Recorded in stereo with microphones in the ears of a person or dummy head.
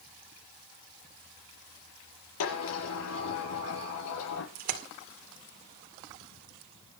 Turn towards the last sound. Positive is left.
turn(degrees=-45)  # may be behind; listen again after turning